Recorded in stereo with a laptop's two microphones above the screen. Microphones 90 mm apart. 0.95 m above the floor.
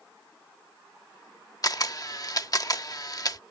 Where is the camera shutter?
45° left (ahead or behind).